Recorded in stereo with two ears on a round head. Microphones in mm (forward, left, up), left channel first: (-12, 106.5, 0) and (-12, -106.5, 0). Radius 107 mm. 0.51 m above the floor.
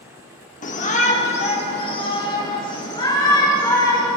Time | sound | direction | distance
0.6 | a shout | 35° left (ahead or behind) | 1.1 m